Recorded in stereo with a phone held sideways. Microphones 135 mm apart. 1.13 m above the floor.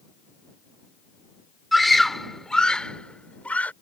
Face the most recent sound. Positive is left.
turn(degrees=10)  # may be behind; listen again after turning